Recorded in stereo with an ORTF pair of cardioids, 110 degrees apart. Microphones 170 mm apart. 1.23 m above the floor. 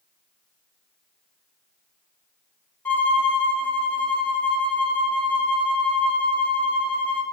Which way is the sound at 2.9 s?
10° left.